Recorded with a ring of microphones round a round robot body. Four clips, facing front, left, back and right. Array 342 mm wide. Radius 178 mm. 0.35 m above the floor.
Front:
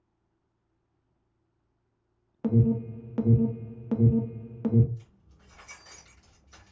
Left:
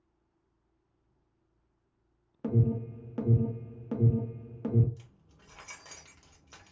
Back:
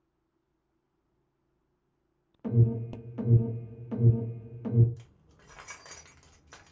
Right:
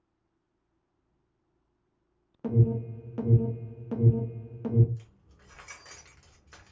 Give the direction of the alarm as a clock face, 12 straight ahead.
12 o'clock.